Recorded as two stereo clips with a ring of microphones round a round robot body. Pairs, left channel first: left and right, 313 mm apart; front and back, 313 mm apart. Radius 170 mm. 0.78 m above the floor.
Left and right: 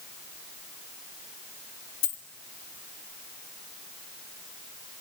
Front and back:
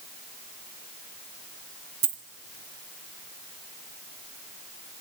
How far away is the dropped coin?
About 1.5 m.